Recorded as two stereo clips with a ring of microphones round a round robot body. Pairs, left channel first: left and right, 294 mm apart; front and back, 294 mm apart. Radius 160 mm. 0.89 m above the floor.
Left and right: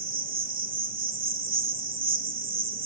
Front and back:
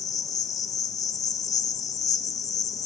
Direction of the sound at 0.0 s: 70° right.